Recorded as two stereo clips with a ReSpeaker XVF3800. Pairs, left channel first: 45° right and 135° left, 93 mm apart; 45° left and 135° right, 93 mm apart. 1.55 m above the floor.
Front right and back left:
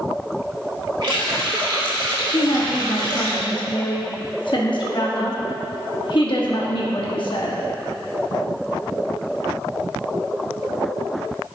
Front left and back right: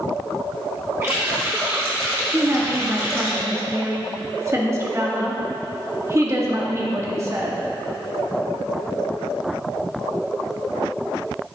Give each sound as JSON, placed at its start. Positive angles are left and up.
{"t": 1.0, "sound": "a running tap", "azimuth_deg": 165, "distance_m": 2.0}
{"t": 2.3, "sound": "a woman speaking", "azimuth_deg": -75, "distance_m": 1.2}